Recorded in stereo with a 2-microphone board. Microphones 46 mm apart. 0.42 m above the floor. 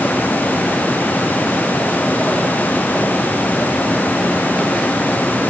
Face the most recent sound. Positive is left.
No sound to turn to.